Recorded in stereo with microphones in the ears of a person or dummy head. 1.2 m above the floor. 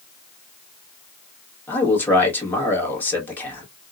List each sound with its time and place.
1.7 s a man speaking: 10° left (ahead or behind), 1.4 m